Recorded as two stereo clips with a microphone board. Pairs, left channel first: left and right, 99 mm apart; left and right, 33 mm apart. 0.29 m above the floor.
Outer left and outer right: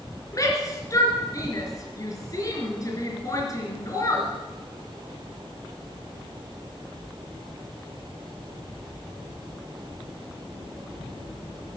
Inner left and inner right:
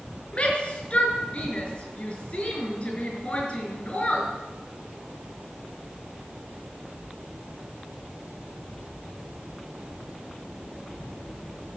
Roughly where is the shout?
Left.